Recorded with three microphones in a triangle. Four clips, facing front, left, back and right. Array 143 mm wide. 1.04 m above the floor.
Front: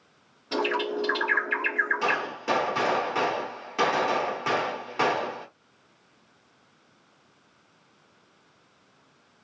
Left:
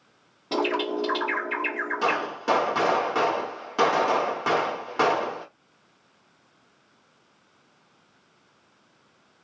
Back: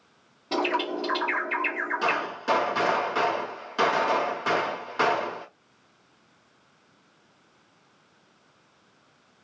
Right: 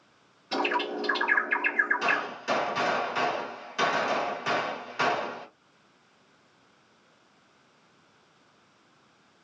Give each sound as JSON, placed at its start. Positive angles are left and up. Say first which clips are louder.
{"t": 0.5, "sound": "a bird", "louder": "left 3 dB, back 1 dB", "azimuth_deg": 110, "distance_m": 1.7}
{"t": 2.0, "sound": "a gunshot", "louder": "left 4 dB, back 1 dB", "azimuth_deg": 80, "distance_m": 1.6}